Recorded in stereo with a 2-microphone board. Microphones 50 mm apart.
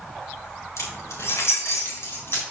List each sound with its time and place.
0.8 s keys jangling: 80° left, 2.5 m; by 2.4 s 55° left (ahead or behind), 3.5 m